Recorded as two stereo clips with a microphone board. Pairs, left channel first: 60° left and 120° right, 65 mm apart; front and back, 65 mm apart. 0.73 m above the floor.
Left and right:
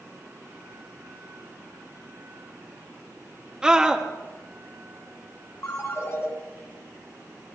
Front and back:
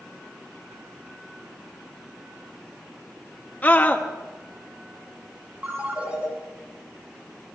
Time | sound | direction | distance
3.6 | a scream | 50° right | 0.9 m
5.6 | a ringtone | 110° left | 4 m